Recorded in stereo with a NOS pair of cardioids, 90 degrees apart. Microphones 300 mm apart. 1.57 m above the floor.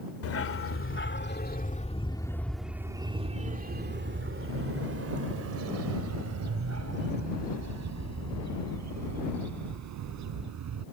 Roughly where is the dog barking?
Ahead left.